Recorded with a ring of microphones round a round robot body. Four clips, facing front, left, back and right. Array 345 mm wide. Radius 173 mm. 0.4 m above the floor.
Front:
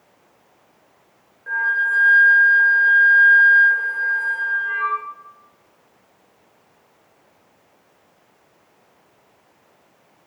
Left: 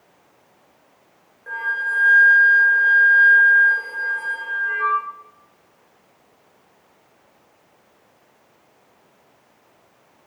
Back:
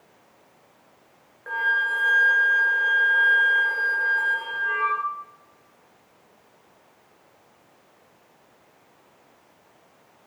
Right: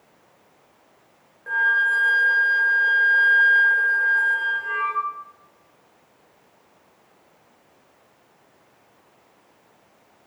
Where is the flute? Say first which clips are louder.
Right 4 dB, front 3 dB; 170° right, 1.3 m.